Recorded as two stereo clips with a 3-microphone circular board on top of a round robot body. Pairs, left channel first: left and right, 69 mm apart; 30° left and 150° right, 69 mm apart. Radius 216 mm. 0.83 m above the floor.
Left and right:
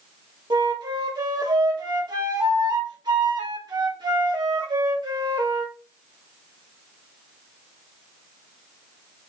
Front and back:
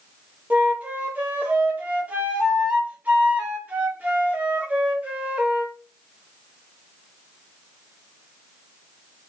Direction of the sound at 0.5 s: 85° right.